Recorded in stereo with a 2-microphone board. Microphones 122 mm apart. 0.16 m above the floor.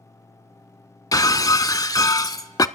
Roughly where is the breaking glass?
Left.